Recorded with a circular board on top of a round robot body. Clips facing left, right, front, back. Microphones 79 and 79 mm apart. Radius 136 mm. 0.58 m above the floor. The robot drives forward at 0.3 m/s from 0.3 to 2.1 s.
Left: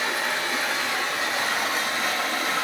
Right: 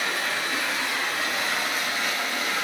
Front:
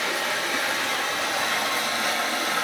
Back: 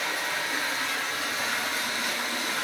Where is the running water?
20° left, 1.4 m; by 2.6 s 35° left, 1.0 m.